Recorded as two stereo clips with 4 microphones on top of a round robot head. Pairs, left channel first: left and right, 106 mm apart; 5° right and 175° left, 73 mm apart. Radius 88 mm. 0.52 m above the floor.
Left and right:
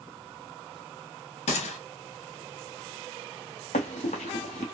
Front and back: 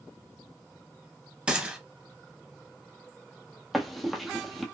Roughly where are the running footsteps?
Left.